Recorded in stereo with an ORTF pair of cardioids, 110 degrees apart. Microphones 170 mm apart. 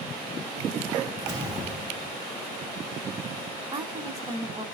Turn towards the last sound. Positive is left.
turn(degrees=-25)